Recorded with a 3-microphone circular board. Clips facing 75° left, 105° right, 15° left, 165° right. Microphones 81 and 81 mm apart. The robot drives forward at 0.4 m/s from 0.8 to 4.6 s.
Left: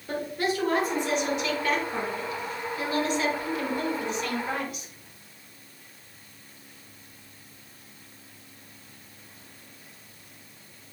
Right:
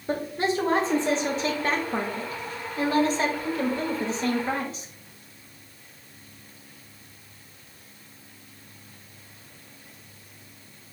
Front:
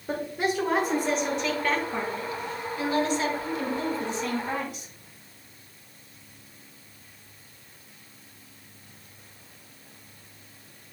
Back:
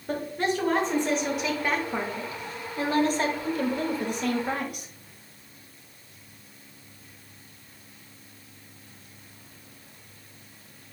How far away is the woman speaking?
About 0.9 m.